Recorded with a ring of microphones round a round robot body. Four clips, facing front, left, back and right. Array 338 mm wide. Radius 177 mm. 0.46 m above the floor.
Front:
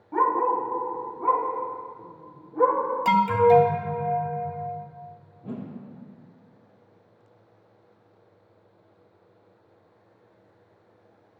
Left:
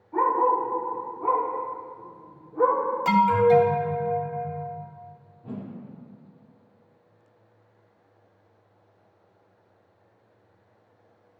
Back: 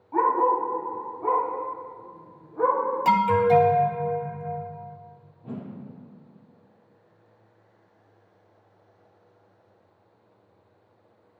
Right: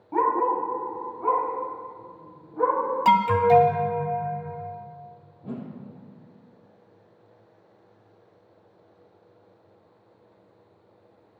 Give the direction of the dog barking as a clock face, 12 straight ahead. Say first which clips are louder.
Left 1 dB, back 1 dB; 2 o'clock.